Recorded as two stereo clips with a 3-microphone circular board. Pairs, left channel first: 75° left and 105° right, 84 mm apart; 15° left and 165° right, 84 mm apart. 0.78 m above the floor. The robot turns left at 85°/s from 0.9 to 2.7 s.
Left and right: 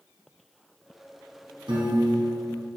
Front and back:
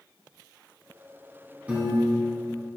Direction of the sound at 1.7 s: 90° right.